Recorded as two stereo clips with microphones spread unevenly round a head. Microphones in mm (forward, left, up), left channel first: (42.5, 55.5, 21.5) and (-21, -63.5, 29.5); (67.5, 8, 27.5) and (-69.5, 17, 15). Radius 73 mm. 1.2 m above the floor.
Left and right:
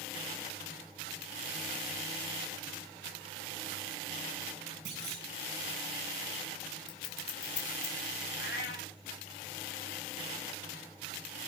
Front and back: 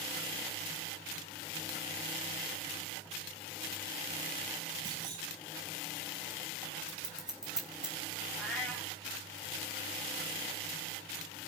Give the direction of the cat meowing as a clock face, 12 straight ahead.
9 o'clock.